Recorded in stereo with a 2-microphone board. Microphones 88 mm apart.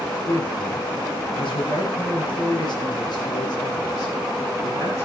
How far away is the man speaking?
About 6.5 m.